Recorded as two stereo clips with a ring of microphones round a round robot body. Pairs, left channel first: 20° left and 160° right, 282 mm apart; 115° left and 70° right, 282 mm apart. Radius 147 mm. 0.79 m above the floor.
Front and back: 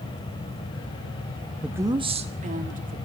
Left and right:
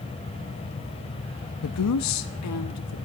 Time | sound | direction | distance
1.6 | a woman speaking | 115° left | 0.8 m